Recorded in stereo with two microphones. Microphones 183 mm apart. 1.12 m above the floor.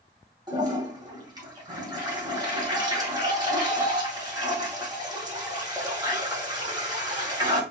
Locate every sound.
0.5 s a toilet flushing: 25° right (ahead or behind), 1.8 m